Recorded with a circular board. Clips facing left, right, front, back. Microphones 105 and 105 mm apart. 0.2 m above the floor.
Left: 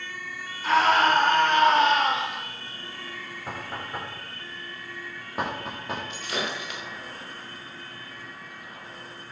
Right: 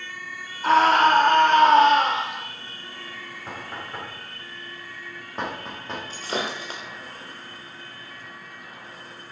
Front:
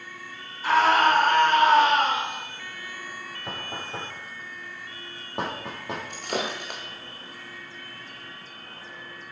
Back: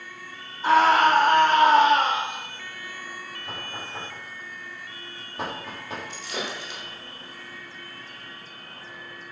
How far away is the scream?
About 6.5 m.